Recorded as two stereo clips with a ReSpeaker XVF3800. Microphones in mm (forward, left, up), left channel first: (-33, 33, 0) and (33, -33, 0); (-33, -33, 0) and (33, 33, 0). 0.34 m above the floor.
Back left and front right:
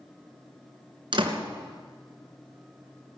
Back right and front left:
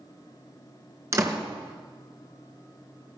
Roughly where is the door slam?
Ahead.